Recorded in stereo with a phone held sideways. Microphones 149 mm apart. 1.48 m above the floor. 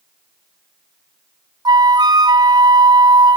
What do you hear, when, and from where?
1.6 s a flute: 25° right (ahead or behind), 0.7 m